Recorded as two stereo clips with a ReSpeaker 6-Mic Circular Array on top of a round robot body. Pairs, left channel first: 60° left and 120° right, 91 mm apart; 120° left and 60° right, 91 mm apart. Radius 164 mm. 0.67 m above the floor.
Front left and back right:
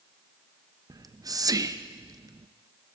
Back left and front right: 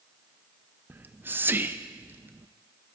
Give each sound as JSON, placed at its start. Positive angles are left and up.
{"t": 0.9, "sound": "whispering", "azimuth_deg": -115, "distance_m": 0.5}